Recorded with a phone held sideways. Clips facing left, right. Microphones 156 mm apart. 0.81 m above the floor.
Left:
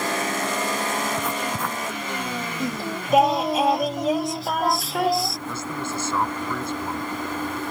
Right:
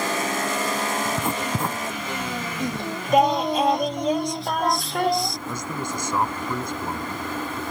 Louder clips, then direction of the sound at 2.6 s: Even; centre (ahead or behind).